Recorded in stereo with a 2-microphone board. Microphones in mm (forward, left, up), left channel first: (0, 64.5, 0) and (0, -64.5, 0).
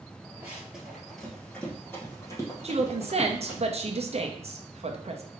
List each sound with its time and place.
0.4 s running footsteps: 15° right (ahead or behind), 1.3 m; by 3.6 s 40° left (ahead or behind), 2 m
2.6 s a woman speaking: 55° right (ahead or behind), 0.7 m